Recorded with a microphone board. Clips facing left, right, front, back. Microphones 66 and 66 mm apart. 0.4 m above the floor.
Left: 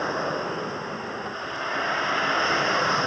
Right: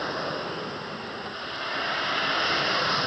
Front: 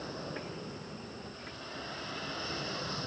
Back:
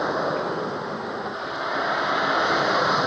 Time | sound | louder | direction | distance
0.0 | a vehicle | left 3 dB, back 17 dB | 165° left | ?